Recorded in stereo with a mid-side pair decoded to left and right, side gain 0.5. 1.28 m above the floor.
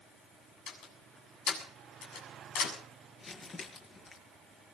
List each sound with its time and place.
0.7 s a door slam: 70° left, 7.5 m
3.2 s crumpling: 40° left, 6.5 m